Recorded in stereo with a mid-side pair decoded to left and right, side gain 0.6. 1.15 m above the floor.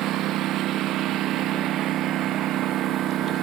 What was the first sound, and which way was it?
A lawn mower, 60° right.